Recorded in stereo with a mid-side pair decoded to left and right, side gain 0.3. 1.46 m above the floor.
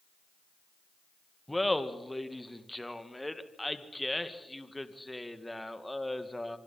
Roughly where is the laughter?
Ahead.